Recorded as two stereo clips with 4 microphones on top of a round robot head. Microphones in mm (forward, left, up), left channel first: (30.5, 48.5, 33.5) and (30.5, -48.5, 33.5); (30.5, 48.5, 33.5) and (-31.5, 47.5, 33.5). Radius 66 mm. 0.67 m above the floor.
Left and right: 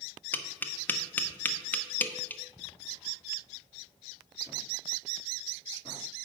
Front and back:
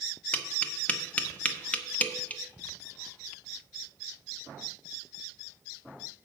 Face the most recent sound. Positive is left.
turn(degrees=40)